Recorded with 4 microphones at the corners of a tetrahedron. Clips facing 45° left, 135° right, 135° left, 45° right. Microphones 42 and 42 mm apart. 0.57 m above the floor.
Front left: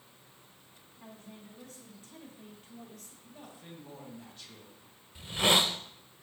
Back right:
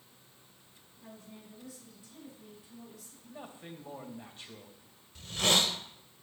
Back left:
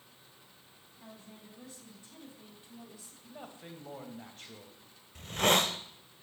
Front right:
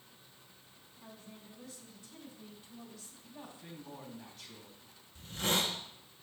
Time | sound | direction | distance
1.0 | a woman speaking | 80° left | 5 m
3.2 | a man speaking | 170° left | 2.5 m
5.2 | a hiss | 115° left | 0.8 m